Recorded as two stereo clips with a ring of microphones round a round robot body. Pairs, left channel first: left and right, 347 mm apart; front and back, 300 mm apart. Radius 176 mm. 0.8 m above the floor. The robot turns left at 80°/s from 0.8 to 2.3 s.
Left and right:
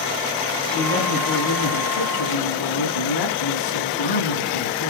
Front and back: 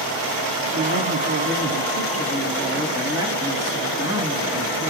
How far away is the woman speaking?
About 10 m.